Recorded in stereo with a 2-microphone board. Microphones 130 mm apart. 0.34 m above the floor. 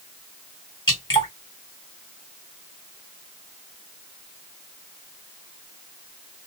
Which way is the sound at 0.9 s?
35° left (ahead or behind).